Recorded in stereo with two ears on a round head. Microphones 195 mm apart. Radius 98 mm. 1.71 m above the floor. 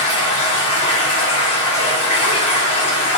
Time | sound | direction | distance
0.0 | running water | 30° left (ahead or behind) | 1.0 m